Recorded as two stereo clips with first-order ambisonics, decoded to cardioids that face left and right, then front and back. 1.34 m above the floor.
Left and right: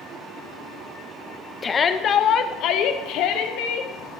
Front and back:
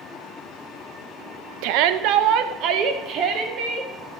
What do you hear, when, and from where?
1.6 s a shout: 160° left, 0.9 m; by 3.9 s 120° left, 1.8 m